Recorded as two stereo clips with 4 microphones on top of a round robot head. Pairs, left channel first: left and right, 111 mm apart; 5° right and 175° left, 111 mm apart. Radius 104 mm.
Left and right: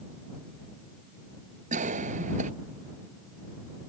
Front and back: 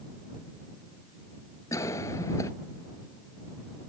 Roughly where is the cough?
Right.